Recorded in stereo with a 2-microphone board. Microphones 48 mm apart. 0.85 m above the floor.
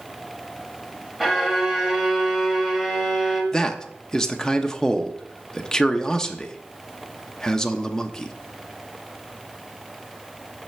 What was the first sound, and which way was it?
A violin, 5° right (ahead or behind).